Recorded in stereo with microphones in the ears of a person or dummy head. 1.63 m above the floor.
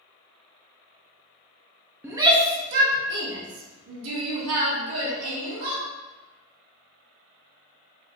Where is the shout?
5° right (ahead or behind), 0.5 m; by 5.8 s 80° right, 2 m.